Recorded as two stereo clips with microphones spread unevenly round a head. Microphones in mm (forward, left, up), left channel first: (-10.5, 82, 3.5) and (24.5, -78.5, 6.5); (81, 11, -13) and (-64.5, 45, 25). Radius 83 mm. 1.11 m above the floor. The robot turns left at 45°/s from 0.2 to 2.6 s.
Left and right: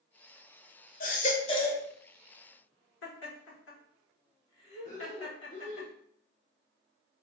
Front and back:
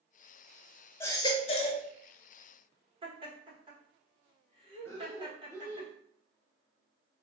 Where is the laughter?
105° left, 1.4 m.